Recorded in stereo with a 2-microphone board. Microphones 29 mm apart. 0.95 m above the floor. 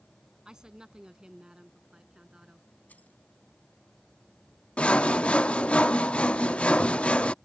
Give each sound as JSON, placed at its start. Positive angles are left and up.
{"t": 0.5, "sound": "a woman speaking", "side_deg": -25}
{"t": 2.9, "sound": "keys jangling", "side_deg": 75}
{"t": 4.8, "sound": "sawing", "side_deg": 50}